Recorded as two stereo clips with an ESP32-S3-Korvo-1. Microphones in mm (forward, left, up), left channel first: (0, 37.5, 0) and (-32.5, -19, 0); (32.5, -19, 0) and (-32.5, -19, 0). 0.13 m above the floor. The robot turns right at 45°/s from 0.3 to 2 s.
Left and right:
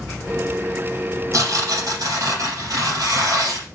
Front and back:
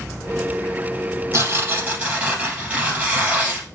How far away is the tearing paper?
About 3.5 m.